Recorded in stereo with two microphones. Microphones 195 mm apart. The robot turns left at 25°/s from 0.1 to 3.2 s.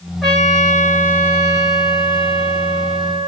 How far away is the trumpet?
About 1.3 m.